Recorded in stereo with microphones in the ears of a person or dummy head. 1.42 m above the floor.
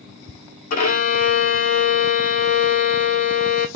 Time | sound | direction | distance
0.7 | a violin | 35° left (ahead or behind) | 1.6 m